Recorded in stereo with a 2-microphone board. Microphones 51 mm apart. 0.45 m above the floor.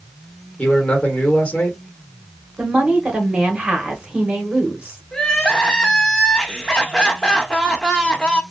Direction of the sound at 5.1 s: 15° left (ahead or behind).